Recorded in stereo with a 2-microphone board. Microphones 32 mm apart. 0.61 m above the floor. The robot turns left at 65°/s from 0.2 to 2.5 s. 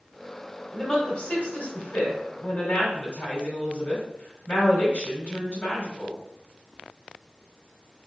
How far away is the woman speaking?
About 2 m.